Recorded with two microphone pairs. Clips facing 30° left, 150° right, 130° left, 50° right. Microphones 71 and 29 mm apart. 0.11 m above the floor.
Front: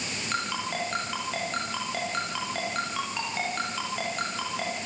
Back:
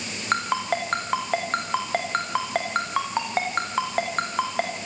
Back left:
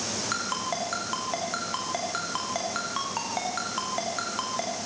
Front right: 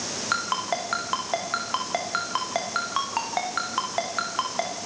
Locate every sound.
0.3 s a ringtone: 110° right, 5 m